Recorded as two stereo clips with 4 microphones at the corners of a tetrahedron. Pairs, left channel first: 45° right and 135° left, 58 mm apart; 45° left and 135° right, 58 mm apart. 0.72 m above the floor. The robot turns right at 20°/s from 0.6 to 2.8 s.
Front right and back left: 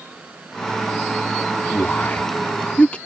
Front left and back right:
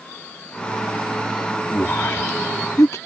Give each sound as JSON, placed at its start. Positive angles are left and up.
{"t": 1.7, "sound": "a man speaking", "azimuth_deg": 0}